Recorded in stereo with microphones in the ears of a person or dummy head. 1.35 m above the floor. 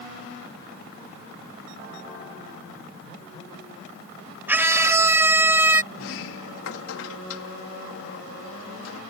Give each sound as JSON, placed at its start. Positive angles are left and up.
{"t": 4.5, "sound": "a scream", "side_deg": -10}
{"t": 5.9, "sound": "a sliding door", "side_deg": 85}